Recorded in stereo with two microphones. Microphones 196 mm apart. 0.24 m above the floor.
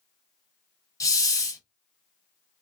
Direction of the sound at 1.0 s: 15° left (ahead or behind).